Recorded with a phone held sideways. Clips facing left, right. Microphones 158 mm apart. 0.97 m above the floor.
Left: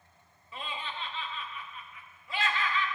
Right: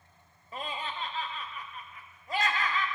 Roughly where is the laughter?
Right.